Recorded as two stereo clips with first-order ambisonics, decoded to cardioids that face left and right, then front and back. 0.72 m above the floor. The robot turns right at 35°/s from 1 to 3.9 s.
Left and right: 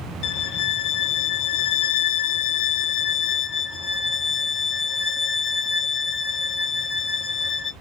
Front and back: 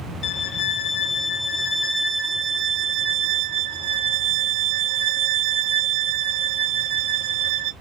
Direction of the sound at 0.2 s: 55° left.